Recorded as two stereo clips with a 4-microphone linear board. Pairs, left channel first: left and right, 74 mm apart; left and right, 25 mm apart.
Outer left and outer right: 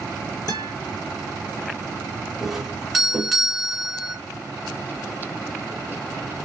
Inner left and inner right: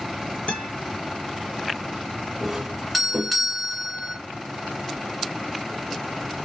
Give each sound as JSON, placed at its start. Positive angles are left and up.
{"t": 0.5, "sound": "a guitar", "side_deg": 65, "distance_m": 1.8}
{"t": 2.4, "sound": "a doorbell", "side_deg": -5, "distance_m": 1.7}